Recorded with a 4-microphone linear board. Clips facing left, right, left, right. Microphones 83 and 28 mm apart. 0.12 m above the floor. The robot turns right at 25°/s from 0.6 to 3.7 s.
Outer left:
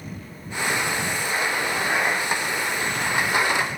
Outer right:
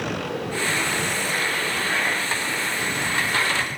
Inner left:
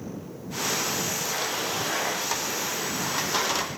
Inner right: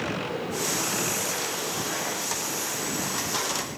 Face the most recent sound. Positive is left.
turn(degrees=0)